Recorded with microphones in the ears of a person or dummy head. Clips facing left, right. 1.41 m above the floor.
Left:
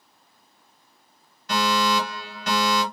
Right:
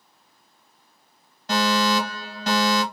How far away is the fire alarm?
About 2 m.